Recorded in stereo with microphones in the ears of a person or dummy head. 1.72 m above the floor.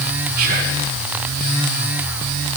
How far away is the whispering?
About 0.9 m.